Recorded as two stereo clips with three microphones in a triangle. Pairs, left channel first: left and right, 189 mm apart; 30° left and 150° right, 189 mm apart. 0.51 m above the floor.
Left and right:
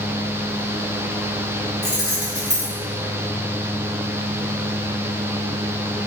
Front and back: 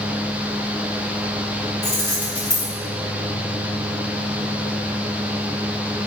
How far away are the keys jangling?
About 1.6 m.